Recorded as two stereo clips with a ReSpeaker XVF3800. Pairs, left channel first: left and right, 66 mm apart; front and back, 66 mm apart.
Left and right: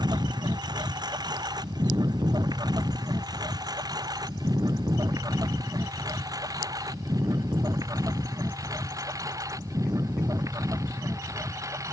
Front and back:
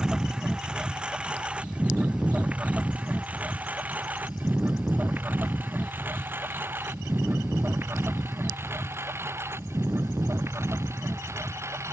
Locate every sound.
0.0 s a lawn mower: 100° right; by 11.9 s 130° right